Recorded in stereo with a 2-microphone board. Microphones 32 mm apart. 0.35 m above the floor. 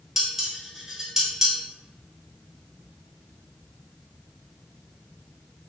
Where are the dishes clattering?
10° right (ahead or behind), 0.6 m.